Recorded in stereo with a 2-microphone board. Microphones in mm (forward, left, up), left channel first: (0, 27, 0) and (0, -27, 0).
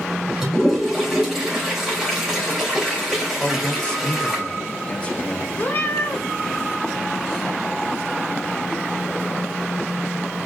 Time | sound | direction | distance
0.4 | a toilet flushing | 5° right (ahead or behind) | 3 m
3.4 | a man speaking | 20° left (ahead or behind) | 0.9 m
5.6 | a cat meowing | 40° left (ahead or behind) | 1.0 m